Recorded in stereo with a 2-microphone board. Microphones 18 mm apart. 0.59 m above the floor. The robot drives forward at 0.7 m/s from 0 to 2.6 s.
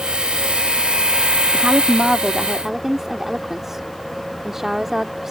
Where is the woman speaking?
40° right (ahead or behind); by 5.3 s 25° right (ahead or behind).